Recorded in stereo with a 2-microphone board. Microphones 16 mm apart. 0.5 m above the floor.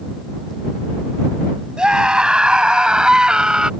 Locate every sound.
1.8 s a scream: 75° right (ahead or behind); by 3.7 s 70° right (ahead or behind)